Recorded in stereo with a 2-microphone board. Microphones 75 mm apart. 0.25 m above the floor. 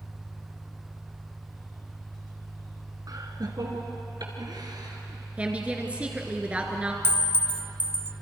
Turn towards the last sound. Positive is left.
turn(degrees=-25)  # may be behind; listen again after turning